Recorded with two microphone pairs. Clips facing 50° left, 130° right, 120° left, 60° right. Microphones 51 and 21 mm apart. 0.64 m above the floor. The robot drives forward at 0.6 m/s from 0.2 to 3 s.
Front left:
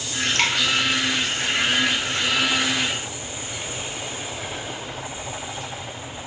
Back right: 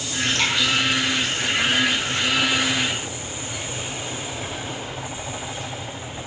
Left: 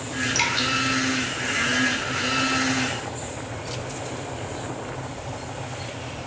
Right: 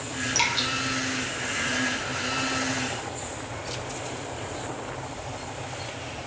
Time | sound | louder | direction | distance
0.3 | dripping | front left 1 dB, left 1 dB | 25° left | 1.0 m